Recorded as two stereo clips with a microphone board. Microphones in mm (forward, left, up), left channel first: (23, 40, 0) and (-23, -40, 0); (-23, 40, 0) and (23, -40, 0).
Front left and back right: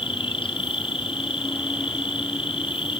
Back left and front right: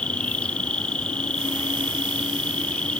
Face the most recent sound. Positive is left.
turn(degrees=40)